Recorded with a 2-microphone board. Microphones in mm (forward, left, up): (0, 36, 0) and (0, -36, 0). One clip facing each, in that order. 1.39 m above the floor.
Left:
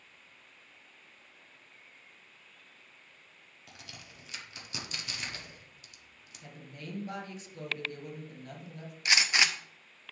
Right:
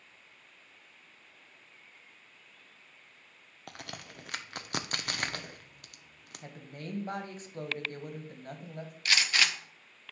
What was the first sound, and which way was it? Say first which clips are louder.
A crack: right 7 dB; 60° right (ahead or behind).